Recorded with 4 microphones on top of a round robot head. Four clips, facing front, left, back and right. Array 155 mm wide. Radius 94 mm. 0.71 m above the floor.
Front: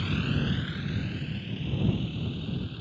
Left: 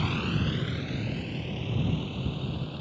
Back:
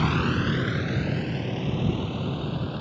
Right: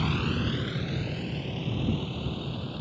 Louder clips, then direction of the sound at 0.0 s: Right 1 dB, back 6 dB; straight behind.